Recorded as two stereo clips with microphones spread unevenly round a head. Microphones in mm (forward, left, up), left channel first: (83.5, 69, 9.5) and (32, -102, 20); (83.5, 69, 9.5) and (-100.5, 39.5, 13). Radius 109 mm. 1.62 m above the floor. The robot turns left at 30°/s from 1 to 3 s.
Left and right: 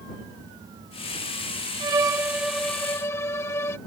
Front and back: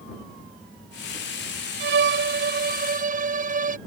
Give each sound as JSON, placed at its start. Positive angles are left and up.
{"t": 1.8, "sound": "a violin", "azimuth_deg": -170}